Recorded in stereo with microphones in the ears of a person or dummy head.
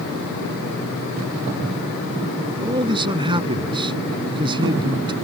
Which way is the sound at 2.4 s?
25° right (ahead or behind).